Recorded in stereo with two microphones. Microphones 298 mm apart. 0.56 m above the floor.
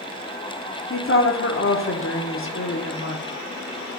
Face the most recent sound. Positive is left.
turn(degrees=45)  # may be behind; listen again after turning